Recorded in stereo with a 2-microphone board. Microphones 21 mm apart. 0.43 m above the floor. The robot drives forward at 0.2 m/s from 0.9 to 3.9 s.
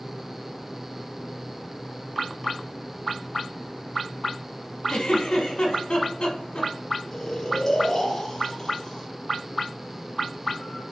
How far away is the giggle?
About 1.1 m.